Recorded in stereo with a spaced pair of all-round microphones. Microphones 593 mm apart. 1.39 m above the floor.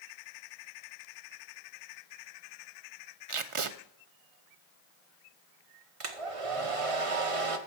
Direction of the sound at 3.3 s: 55° right (ahead or behind).